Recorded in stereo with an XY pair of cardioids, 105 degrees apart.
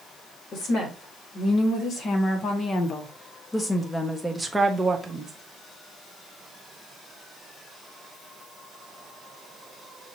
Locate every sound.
0.5 s a woman speaking: 65° left, 2.5 m; by 5.3 s 30° right, 1.0 m